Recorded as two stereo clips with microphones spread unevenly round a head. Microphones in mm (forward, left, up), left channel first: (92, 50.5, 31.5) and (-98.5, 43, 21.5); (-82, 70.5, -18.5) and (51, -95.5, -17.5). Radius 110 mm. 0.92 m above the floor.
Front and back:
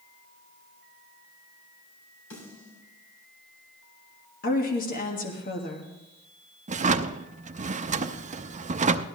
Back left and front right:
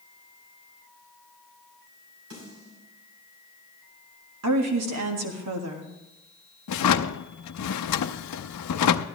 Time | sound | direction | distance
2.3 | a snare drum | 20° right | 7 m
4.4 | a woman speaking | 45° right | 1.6 m
6.7 | a drawer | 130° left | 0.6 m